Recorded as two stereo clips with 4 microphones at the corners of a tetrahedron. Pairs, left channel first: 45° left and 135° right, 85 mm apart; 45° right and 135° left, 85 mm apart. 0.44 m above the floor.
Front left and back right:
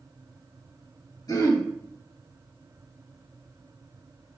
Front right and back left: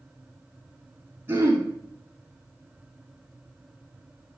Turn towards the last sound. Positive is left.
turn(degrees=80)